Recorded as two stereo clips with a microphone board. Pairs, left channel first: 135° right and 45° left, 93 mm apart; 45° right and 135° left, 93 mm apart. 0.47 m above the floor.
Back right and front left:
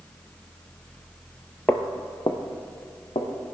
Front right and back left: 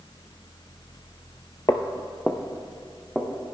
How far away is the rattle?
I don't hear a rattle.